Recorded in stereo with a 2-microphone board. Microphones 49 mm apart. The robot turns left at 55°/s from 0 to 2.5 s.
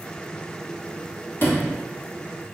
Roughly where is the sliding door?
Left.